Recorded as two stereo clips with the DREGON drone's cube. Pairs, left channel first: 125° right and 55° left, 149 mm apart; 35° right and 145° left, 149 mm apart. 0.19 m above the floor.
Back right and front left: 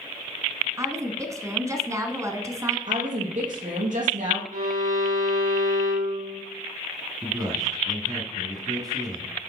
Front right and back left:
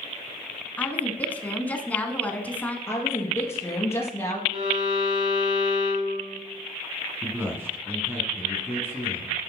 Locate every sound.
0.8 s a woman speaking: 30° left, 1.1 m
2.9 s a woman speaking: 35° left, 3.5 m
4.5 s a violin: 90° left, 4 m
7.2 s a man speaking: 85° left, 1.8 m